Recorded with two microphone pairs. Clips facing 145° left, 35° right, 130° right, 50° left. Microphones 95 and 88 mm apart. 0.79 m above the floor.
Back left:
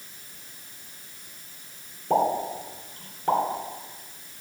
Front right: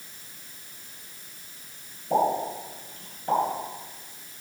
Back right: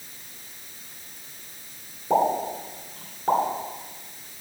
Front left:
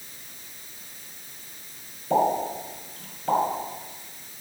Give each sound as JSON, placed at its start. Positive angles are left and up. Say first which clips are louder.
{"t": 2.1, "sound": "a pop", "louder": "back left 1 dB, even", "azimuth_deg": 175, "distance_m": 2.5}